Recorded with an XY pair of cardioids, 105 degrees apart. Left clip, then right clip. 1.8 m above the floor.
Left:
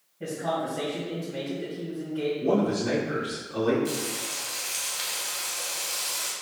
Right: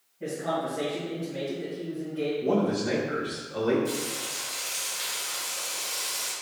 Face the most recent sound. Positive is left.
turn(degrees=45)